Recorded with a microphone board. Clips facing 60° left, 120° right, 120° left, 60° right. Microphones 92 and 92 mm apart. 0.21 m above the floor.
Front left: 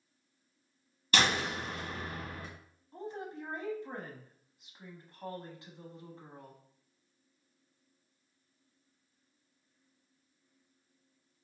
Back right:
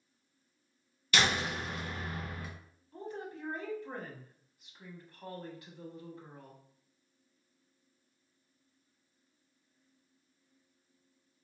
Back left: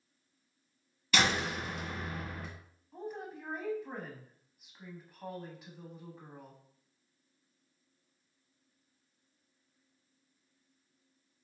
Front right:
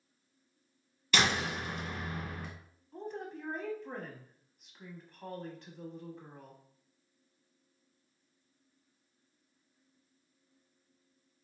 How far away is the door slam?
About 1.5 m.